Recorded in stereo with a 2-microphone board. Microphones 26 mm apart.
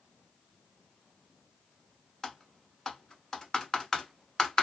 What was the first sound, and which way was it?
Typing on a keyboard, 15° left (ahead or behind).